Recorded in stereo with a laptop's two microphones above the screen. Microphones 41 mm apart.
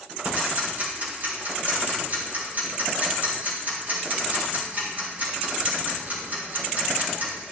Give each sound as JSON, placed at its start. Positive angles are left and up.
{"t": 0.2, "sound": "ticking", "side_deg": -45, "distance_m": 5.0}